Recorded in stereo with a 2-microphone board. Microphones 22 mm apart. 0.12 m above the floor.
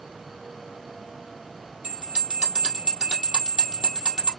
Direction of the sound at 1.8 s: 45° right (ahead or behind).